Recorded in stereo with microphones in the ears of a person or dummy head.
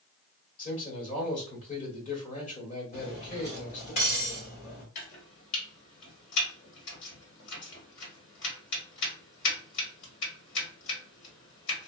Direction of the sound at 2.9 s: 30° left (ahead or behind).